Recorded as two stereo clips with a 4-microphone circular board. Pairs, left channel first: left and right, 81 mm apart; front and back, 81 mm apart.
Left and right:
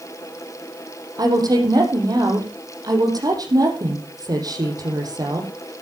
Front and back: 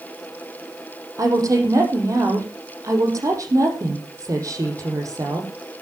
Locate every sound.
1.2 s a woman speaking: 130° right, 6 m